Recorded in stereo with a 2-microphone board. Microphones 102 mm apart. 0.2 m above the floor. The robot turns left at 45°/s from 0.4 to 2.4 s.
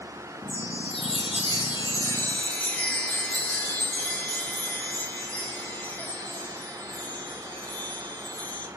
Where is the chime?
100° left, 0.5 m; by 8.7 s 15° left, 0.5 m.